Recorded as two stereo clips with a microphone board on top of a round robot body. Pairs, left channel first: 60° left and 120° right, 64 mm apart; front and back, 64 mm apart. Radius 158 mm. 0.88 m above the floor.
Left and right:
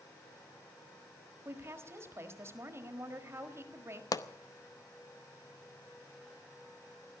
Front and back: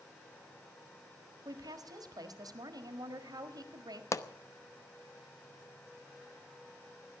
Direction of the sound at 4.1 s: 40° left.